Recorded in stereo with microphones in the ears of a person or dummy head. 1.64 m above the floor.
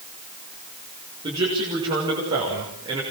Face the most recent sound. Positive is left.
turn(degrees=-25)  # may be behind; listen again after turning